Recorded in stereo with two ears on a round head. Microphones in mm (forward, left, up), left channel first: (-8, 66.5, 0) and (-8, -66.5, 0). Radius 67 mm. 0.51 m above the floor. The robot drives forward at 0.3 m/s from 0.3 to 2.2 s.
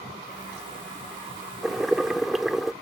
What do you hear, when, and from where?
1.6 s boiling: 5° right (ahead or behind); by 2.7 s centre (ahead or behind)